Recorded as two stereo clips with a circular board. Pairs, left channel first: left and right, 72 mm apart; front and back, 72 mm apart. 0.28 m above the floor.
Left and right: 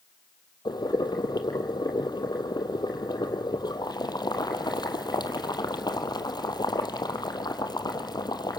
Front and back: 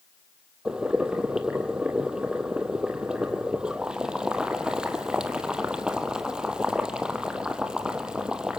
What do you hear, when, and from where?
0.7 s boiling: 100° left, 1.6 m